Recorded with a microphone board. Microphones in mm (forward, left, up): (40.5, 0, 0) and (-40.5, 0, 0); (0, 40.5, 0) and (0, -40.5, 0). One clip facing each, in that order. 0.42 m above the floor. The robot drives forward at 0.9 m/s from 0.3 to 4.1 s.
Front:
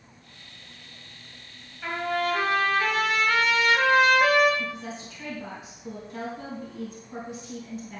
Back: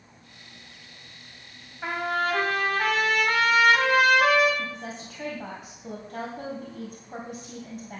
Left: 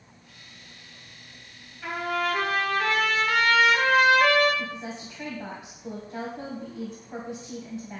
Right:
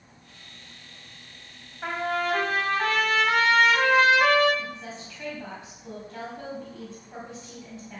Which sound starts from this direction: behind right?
A trumpet, at 1.8 s.